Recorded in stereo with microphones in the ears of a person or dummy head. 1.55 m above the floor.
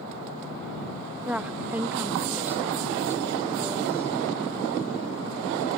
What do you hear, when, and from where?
1.2 s a woman speaking: 10° right (ahead or behind); by 4.1 s 15° right (ahead or behind)